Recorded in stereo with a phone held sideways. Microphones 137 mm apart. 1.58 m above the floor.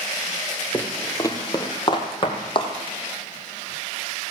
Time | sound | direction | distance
0.7 | footsteps | 15° left (ahead or behind) | 1.7 m